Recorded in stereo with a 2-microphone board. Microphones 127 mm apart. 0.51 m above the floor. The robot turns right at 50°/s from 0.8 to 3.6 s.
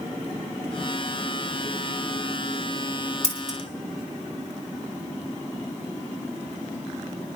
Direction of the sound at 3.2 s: 55° left (ahead or behind).